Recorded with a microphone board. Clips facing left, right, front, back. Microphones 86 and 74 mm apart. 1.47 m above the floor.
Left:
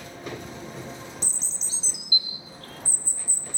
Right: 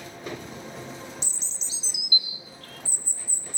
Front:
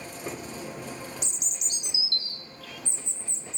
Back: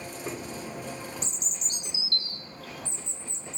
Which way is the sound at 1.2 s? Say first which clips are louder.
Left 2 dB, back 1 dB; 135° left.